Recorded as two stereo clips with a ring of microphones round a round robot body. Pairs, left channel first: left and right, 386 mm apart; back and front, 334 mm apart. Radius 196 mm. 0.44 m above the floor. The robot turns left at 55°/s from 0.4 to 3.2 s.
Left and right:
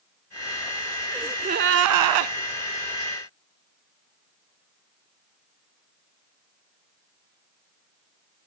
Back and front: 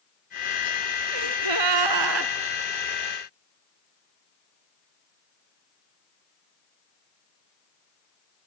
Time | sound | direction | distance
1.1 | a gasp | straight ahead | 0.8 m